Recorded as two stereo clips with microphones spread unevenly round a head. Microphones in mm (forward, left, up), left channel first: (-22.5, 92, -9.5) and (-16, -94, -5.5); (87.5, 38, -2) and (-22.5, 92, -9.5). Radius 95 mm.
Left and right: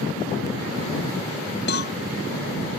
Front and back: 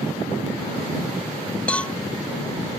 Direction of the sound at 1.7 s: 55° left.